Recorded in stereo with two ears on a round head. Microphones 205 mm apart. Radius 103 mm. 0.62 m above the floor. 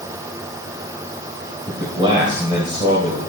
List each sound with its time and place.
1.7 s a man speaking: 20° right (ahead or behind), 3 m